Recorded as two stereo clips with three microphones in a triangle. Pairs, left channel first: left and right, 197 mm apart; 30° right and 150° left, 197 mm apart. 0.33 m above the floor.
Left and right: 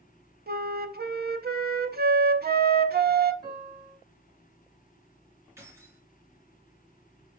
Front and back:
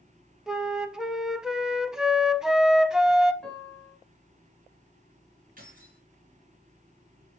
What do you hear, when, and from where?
0.5 s a flute: 125° right, 0.6 m
3.4 s a piano: 115° right, 2.5 m
5.6 s keys jangling: 165° right, 3 m